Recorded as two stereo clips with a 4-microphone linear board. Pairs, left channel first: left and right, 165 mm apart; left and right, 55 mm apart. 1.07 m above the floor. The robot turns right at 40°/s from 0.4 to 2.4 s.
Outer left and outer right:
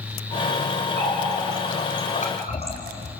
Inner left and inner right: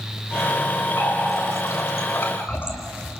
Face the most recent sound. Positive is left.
turn(degrees=40)  # may be behind; listen again after turning